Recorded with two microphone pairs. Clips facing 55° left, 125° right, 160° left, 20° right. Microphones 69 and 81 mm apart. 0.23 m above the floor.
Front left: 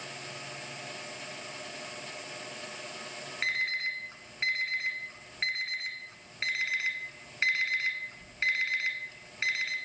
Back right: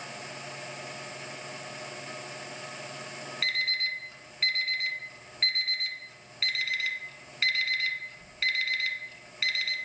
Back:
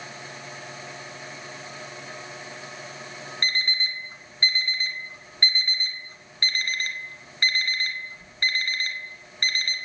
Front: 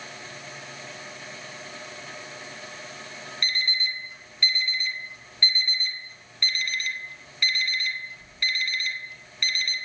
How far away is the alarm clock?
About 1.2 m.